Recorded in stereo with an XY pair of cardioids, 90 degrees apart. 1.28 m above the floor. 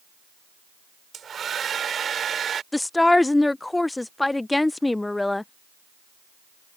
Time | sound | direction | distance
1.1 | a hair dryer | 55° right | ?
2.7 | a woman speaking | 15° left | ?